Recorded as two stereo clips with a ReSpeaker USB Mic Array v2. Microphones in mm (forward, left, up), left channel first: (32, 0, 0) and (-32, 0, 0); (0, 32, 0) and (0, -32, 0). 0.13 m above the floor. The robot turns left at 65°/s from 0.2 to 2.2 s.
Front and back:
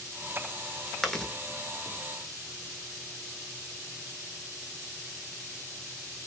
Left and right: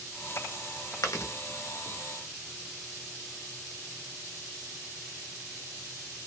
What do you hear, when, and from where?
1.0 s chewing: 90° left, 0.9 m; by 1.3 s 70° left, 0.9 m